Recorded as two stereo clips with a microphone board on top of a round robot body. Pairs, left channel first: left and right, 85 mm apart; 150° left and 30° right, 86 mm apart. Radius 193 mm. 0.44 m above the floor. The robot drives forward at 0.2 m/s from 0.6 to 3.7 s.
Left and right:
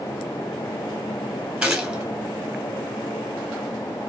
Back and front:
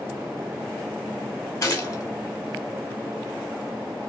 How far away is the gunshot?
About 1.8 m.